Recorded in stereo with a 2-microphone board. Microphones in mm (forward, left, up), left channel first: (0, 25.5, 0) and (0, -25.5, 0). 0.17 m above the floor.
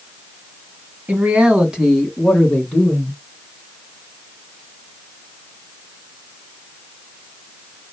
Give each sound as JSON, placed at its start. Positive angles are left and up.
{"t": 1.1, "sound": "a man speaking", "side_deg": -30, "distance_m": 1.5}